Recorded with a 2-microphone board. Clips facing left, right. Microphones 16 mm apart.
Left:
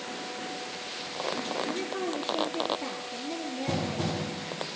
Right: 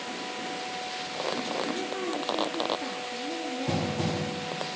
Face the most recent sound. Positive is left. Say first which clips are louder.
# right 1 dB
turn(degrees=15)  # may be behind; listen again after turning